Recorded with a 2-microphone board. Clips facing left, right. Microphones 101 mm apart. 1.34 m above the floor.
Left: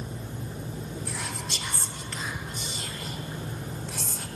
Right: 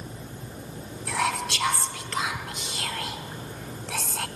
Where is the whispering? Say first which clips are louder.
Right 9 dB; 75° right (ahead or behind), 0.7 m.